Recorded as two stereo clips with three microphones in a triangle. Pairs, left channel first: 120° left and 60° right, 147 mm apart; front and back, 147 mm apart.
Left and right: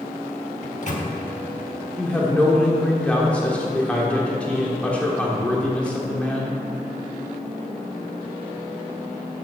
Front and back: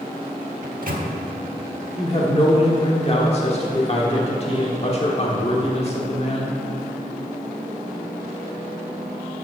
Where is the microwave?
160° left, 1.1 m.